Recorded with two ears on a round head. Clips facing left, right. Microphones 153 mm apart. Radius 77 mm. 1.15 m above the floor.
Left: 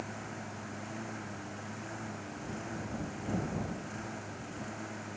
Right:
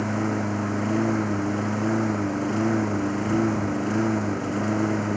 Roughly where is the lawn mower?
Right.